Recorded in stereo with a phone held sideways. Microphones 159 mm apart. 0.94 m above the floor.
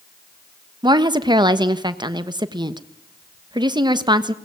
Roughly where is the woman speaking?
Right.